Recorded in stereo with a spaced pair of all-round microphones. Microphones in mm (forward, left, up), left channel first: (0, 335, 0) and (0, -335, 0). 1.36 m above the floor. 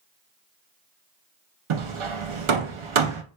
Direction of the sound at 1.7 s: 50° right (ahead or behind).